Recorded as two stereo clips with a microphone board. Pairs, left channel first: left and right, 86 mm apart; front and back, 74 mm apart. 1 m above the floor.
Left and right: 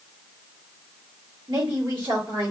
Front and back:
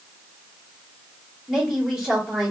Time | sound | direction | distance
1.5 | a woman speaking | 95° right | 1.5 m